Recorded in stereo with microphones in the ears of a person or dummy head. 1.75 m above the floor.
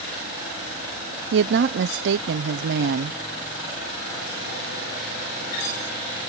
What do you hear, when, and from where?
1.3 s a woman speaking: 70° right (ahead or behind)